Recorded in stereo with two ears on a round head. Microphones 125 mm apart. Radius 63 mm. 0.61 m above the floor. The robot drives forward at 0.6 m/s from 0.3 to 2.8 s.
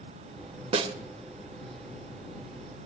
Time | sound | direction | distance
0.7 | a snare drum | 45° right (ahead or behind) | 0.9 m